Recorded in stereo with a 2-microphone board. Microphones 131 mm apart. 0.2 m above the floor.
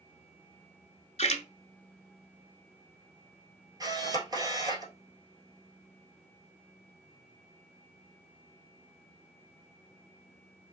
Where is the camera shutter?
30° right (ahead or behind), 1.4 m.